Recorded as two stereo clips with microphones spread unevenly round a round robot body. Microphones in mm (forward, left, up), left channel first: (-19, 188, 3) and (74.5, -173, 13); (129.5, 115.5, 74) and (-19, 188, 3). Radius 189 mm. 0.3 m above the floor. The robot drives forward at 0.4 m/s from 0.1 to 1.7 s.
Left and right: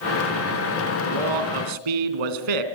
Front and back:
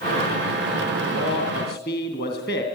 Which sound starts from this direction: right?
A man speaking, at 1.0 s.